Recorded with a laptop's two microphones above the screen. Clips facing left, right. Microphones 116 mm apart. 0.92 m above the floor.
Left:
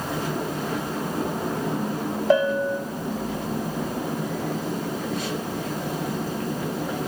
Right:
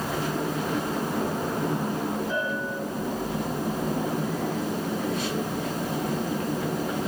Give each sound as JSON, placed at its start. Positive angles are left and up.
{"t": 2.3, "sound": "a bell", "side_deg": 85, "distance_m": 0.6}